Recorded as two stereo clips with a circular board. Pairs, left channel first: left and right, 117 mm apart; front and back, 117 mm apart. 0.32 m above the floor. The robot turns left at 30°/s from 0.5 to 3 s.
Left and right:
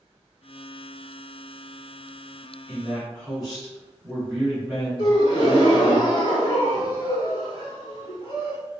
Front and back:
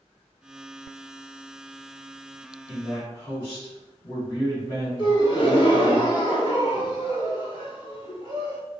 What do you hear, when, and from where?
2.7 s a man speaking: 5° right, 1.5 m; by 6.0 s 15° right, 1.5 m
5.0 s a gasp: 40° left, 1.0 m